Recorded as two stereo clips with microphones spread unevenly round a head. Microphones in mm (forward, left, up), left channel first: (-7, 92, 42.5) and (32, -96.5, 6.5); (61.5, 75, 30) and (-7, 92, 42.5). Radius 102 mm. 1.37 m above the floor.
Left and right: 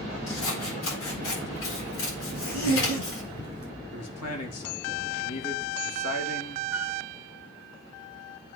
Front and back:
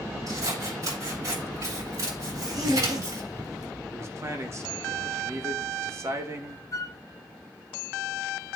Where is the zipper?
140° left, 4 m.